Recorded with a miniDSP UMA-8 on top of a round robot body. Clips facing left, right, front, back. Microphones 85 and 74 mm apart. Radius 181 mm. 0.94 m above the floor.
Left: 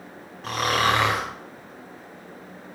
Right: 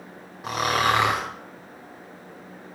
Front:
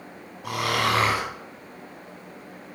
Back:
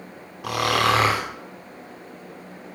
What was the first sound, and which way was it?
Snoring, 170° right.